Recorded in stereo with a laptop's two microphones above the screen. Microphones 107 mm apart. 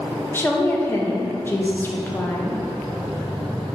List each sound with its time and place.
0.3 s a woman speaking: 20° left (ahead or behind), 0.6 m